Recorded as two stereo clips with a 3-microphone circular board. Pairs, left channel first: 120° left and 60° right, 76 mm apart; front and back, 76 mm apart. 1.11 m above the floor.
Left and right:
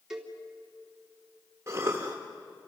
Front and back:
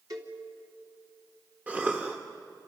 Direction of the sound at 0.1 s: 140° right.